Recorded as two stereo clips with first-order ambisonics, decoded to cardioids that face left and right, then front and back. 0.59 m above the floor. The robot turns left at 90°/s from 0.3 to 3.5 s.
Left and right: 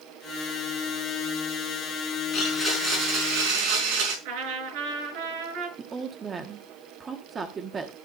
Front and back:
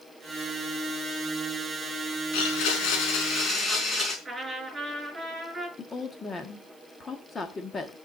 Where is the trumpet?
100° right, 7 m.